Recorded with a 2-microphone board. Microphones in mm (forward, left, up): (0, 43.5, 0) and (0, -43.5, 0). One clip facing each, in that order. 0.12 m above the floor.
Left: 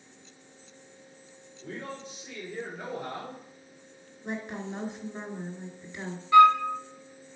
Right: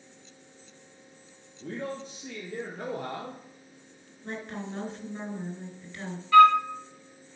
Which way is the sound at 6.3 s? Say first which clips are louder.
Right 1 dB; 20° left (ahead or behind).